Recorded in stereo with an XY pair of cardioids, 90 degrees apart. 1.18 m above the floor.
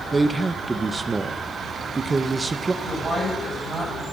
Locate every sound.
0.1 s a man speaking: 30° right, 0.9 m
2.8 s a woman speaking: 35° right, 7.5 m